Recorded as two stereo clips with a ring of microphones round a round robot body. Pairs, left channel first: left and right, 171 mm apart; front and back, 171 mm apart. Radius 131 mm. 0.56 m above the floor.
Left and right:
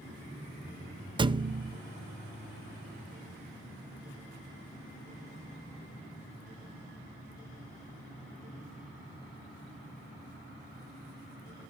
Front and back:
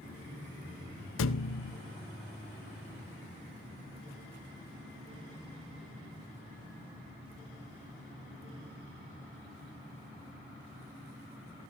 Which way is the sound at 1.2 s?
25° right.